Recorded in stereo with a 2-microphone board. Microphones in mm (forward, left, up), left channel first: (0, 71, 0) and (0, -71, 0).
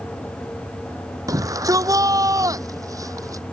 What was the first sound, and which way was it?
A shout, 25° right (ahead or behind).